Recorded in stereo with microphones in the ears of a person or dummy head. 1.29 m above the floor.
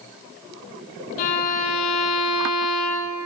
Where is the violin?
50° left (ahead or behind), 1.1 m.